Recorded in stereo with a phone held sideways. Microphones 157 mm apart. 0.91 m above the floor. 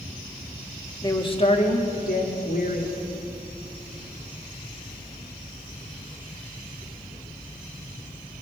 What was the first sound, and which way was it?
A woman speaking, 20° left (ahead or behind).